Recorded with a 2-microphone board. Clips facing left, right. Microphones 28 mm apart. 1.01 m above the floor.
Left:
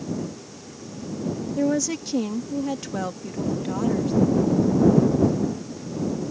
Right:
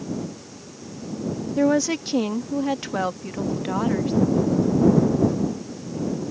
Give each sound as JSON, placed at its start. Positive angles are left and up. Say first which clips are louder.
{"t": 1.6, "sound": "a woman speaking", "louder": "right 4 dB", "side_deg": -30}